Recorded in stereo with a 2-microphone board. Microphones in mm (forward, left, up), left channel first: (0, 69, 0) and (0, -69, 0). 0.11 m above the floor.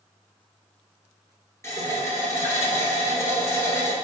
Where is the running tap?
20° left (ahead or behind), 1.2 m.